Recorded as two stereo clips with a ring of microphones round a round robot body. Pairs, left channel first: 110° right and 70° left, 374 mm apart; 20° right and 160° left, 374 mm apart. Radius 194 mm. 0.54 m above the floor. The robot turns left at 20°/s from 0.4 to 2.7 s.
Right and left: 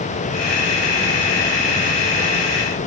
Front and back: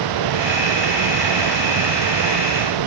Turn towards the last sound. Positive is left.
No sound to turn to.